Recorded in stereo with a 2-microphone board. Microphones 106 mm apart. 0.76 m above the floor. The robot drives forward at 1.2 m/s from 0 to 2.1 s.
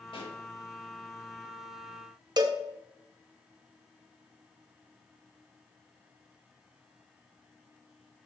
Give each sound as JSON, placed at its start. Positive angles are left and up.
{"t": 0.1, "sound": "a pop", "side_deg": 50, "distance_m": 2.0}
{"t": 2.4, "sound": "a cowbell", "side_deg": -40, "distance_m": 0.5}